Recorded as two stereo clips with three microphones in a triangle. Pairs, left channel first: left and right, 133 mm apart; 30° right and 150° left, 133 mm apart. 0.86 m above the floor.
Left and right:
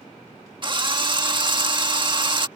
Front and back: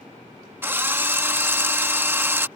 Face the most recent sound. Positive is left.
turn(degrees=-135)